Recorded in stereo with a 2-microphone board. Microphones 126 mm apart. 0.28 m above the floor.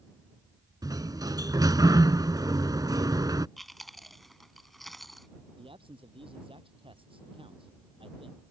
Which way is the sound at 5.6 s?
45° right (ahead or behind).